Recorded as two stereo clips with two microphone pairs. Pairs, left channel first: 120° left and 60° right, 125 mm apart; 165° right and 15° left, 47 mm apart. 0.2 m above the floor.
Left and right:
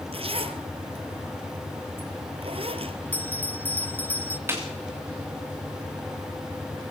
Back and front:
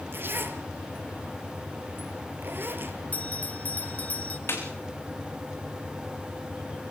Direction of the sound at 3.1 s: Straight behind.